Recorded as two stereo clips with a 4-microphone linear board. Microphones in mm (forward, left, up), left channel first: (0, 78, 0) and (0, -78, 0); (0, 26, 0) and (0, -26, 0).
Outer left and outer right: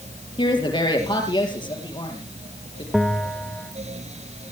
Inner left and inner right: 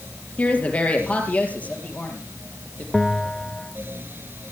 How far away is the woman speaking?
About 4.5 m.